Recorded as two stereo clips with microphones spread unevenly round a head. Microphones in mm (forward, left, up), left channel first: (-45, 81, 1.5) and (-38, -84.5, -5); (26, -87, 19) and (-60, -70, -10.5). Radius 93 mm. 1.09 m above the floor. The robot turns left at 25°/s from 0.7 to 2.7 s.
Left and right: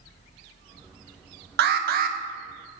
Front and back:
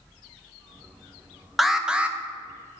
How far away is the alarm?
About 0.7 m.